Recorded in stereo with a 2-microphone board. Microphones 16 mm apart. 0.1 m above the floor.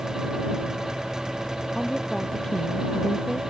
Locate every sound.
1.8 s a woman speaking: 35° left (ahead or behind)